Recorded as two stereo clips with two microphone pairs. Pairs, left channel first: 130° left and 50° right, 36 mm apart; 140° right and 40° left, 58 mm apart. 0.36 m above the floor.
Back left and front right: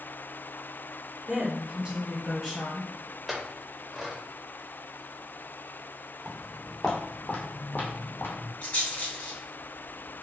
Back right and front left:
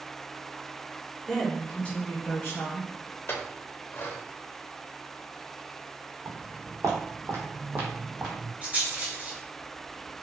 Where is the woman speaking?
50° right, 0.9 m; by 2.9 s 145° right, 1.2 m.